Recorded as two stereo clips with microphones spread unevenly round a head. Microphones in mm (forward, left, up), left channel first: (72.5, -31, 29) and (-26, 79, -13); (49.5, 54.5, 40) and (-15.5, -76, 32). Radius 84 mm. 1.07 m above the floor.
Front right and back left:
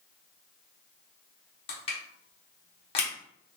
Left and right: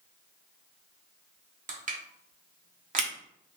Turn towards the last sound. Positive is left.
turn(degrees=-110)